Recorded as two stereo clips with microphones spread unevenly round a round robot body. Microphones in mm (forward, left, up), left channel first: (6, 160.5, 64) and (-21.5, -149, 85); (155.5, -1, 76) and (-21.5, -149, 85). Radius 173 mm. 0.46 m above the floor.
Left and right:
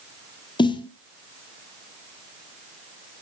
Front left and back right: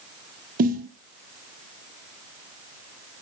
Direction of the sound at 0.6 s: 160° left.